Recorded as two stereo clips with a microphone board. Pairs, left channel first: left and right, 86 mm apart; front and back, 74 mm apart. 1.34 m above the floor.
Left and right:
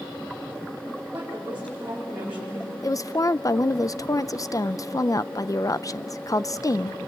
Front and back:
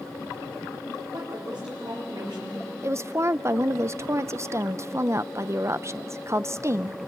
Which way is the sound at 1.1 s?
165° right.